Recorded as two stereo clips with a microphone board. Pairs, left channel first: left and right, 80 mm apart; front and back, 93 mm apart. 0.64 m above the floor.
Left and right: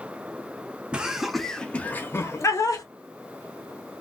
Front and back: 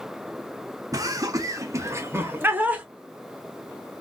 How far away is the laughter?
About 0.8 m.